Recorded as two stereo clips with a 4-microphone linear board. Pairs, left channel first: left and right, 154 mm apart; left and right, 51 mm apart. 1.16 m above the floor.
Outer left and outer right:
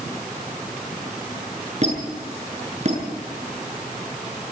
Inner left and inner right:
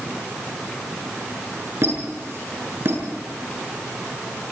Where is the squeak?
50° right (ahead or behind), 7.5 m.